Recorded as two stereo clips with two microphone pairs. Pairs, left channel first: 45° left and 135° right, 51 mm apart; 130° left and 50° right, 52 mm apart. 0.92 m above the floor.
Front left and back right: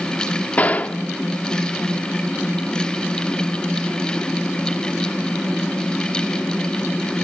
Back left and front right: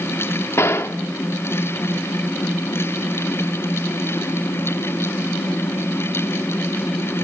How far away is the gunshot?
About 1.1 m.